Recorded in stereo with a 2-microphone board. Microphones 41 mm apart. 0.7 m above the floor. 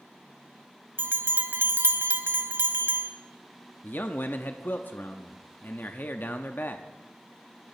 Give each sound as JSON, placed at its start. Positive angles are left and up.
{"t": 1.0, "sound": "a bell", "side_deg": -65, "distance_m": 0.9}
{"t": 3.8, "sound": "a man speaking", "side_deg": 50, "distance_m": 0.8}